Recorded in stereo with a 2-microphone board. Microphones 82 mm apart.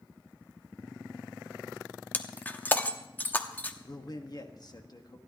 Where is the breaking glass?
20° left (ahead or behind), 0.9 m.